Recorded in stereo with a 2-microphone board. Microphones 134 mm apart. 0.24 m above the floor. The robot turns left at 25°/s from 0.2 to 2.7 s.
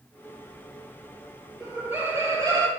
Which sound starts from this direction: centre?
Laughter, at 1.6 s.